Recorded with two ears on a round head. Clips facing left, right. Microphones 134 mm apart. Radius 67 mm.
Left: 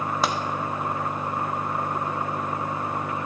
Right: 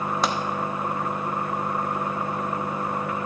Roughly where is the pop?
Centre.